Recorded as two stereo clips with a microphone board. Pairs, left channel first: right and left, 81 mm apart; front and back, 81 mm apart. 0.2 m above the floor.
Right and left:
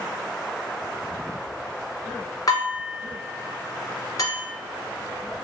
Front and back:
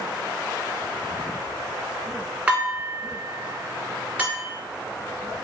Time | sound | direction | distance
2.5 | dishes clattering | 105° right | 1.5 m